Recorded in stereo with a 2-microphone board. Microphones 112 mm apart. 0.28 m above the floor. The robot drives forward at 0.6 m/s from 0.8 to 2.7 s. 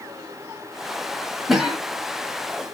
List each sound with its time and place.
1.5 s a cough: 5° right (ahead or behind), 1.1 m; by 1.8 s centre (ahead or behind), 1.3 m